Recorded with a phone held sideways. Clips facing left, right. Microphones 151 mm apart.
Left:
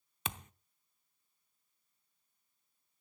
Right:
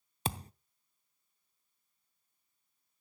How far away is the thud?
About 0.6 m.